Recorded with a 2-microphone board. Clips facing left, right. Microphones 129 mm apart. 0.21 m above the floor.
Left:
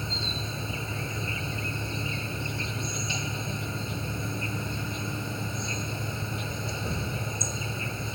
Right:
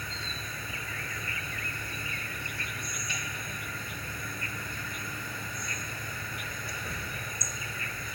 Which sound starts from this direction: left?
An insect, at 0.0 s.